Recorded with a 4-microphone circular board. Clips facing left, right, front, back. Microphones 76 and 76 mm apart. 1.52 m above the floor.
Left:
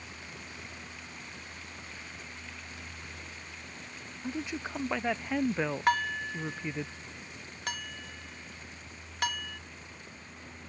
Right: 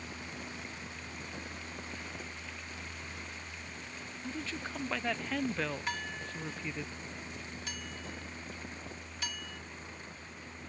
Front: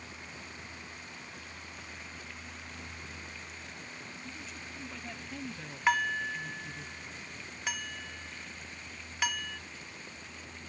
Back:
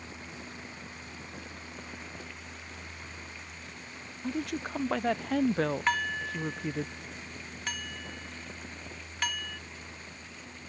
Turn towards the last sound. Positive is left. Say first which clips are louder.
# left 10 dB, front 1 dB
turn(degrees=85)